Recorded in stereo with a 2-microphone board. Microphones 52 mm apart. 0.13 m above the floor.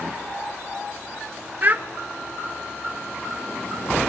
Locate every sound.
1.6 s a child speaking: 40° right (ahead or behind), 0.9 m